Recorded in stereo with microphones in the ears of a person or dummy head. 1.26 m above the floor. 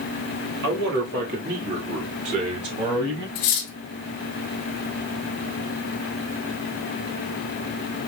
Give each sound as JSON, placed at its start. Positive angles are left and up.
{"t": 0.6, "sound": "a man speaking", "side_deg": -70, "distance_m": 2.0}
{"t": 3.4, "sound": "cutlery clinking", "side_deg": 35, "distance_m": 0.7}